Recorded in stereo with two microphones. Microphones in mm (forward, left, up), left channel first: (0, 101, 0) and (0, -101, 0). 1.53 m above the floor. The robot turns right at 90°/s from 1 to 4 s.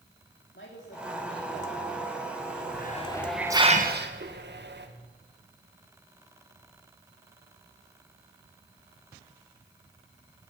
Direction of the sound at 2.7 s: 55° left (ahead or behind).